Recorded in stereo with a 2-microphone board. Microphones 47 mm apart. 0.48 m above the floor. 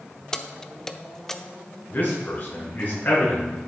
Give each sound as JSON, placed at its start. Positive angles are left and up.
{"t": 0.3, "sound": "keys jangling", "side_deg": 15, "distance_m": 0.6}
{"t": 1.9, "sound": "a man speaking", "side_deg": 45, "distance_m": 5.0}